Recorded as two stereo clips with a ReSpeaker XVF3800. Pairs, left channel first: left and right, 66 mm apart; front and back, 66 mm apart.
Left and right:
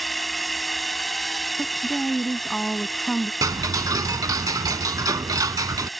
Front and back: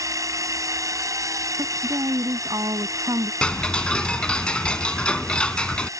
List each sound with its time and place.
0.0 s a drone: straight behind
1.6 s a woman speaking: 175° left
3.4 s ticking: 75° right